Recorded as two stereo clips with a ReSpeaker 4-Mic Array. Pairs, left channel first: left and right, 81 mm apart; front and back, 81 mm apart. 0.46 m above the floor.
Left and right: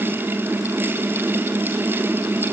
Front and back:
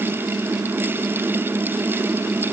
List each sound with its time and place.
Only background noise.